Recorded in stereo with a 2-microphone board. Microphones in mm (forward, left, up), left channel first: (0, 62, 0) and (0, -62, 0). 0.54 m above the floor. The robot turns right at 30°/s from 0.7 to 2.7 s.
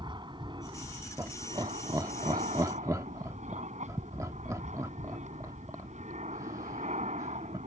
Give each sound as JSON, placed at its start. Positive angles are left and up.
{"t": 0.0, "sound": "an aircraft", "azimuth_deg": -140}
{"t": 1.2, "sound": "laughter", "side_deg": -25}